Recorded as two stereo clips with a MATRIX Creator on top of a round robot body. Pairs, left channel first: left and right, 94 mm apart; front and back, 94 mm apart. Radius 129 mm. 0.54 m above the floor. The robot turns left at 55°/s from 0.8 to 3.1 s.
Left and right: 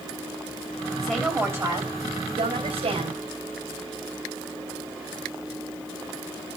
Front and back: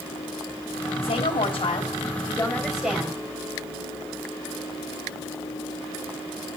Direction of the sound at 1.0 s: 5° left.